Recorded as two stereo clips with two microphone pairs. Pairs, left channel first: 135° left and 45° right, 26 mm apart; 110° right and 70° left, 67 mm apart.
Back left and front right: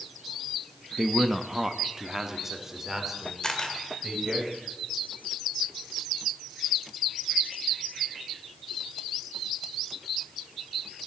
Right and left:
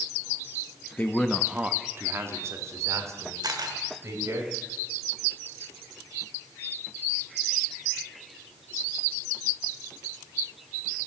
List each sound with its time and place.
1.0 s a man speaking: 125° right, 0.7 m; by 4.4 s 30° left, 4 m
3.4 s a camera shutter: 70° left, 1.7 m